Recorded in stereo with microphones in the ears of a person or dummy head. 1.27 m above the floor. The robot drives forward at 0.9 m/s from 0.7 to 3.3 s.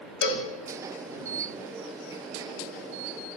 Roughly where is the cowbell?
Left.